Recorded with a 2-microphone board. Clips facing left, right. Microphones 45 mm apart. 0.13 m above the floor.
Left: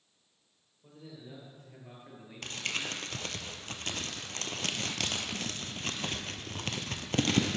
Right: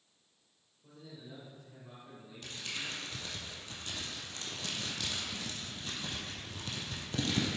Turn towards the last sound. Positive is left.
turn(degrees=70)  # may be behind; listen again after turning